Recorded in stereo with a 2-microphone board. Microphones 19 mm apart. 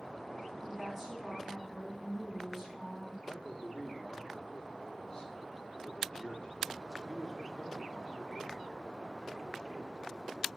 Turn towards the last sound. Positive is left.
turn(degrees=35)  # may be behind; listen again after turning